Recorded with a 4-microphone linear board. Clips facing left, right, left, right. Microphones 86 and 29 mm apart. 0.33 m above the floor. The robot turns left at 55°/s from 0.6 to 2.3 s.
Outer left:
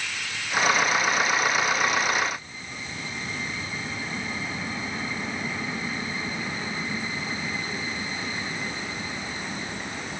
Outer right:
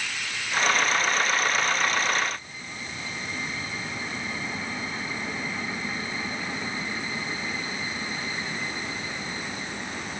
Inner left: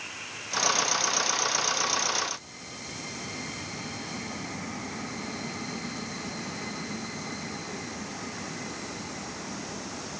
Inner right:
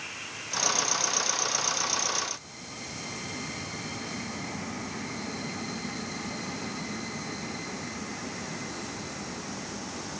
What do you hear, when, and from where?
Only background noise.